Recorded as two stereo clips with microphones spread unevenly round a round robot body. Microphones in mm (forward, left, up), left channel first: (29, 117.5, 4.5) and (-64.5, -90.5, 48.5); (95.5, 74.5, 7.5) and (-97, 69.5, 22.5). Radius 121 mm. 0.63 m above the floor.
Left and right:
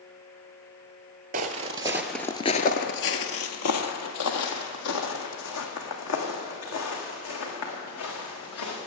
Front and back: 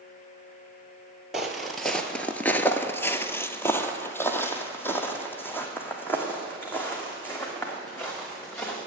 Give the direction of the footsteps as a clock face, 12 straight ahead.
3 o'clock.